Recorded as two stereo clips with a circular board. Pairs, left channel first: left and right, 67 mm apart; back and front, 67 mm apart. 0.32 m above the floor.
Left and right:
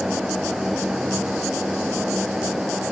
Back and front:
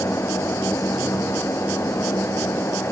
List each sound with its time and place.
Only background noise.